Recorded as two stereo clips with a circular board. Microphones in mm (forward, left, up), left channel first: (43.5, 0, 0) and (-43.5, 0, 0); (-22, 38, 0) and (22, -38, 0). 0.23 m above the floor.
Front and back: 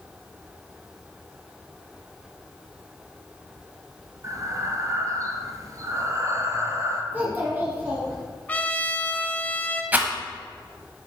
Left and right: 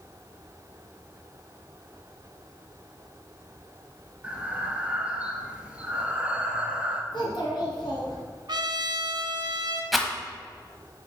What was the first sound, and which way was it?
Breathing, 135° right.